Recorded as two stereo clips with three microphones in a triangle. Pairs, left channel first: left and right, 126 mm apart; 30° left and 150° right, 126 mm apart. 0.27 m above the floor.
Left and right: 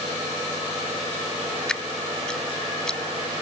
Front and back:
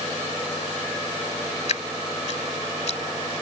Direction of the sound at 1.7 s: 5° left.